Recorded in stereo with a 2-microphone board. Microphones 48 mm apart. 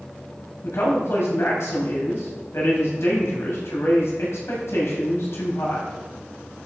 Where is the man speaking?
70° left (ahead or behind), 6 m.